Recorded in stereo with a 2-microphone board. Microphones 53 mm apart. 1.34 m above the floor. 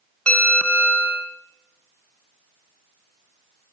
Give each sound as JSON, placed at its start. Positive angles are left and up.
{"t": 0.3, "sound": "a bell", "side_deg": 10, "distance_m": 1.6}